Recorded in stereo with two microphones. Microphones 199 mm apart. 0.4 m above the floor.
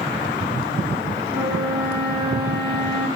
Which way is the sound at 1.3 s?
15° right (ahead or behind).